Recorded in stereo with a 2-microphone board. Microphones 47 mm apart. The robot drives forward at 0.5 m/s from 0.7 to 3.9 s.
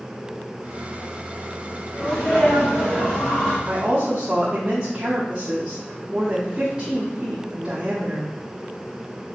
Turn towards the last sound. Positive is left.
turn(degrees=-25)  # may be behind; listen again after turning